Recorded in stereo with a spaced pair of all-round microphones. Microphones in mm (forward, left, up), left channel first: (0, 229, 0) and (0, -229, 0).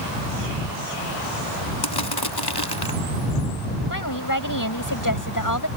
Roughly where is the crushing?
Left.